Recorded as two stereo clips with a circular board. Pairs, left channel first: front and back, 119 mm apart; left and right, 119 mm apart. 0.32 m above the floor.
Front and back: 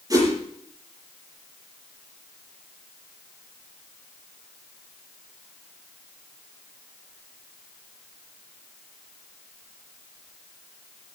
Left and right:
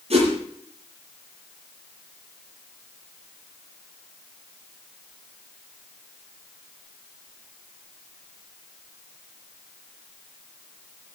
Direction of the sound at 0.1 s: 120° right.